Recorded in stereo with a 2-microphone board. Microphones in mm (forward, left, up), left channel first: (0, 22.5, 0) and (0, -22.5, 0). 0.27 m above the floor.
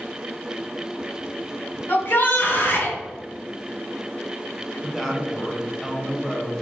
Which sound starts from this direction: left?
A shout, at 1.9 s.